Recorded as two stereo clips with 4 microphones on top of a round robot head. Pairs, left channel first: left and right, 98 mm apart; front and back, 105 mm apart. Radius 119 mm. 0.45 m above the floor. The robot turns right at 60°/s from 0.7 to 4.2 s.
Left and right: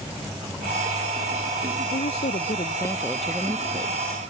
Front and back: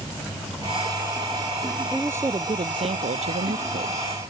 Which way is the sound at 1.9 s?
100° left.